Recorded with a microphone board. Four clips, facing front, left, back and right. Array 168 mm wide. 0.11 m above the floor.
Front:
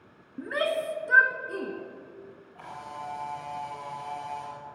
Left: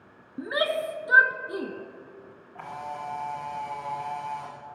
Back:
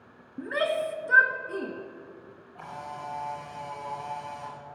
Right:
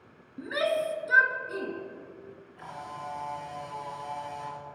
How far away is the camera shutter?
About 6.5 m.